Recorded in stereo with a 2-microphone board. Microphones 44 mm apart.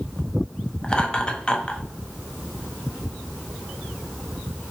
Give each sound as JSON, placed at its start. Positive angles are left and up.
{"t": 0.8, "sound": "laughter", "side_deg": 20, "distance_m": 0.8}